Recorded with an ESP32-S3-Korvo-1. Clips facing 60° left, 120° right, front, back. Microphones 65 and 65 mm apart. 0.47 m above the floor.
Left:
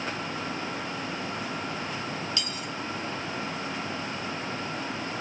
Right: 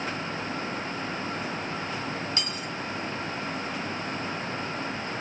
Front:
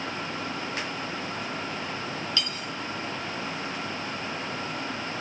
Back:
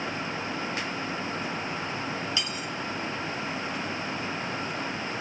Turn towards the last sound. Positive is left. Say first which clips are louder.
# right 1 dB, even
turn(degrees=-115)